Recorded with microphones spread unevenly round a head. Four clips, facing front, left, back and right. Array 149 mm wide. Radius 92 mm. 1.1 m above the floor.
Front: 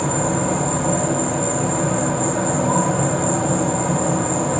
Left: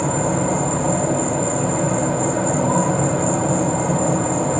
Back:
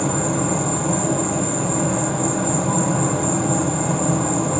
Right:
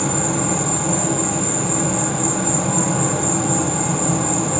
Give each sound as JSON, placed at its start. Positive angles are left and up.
{"t": 0.0, "sound": "an insect", "azimuth_deg": 65, "distance_m": 2.5}